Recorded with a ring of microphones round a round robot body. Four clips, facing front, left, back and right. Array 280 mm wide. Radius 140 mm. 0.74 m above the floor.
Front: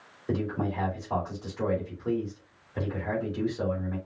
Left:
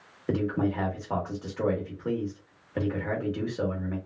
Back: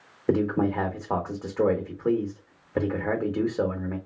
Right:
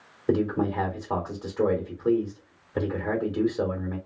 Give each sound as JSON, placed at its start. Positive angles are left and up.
{"t": 0.3, "sound": "a man speaking", "azimuth_deg": -165, "distance_m": 1.8}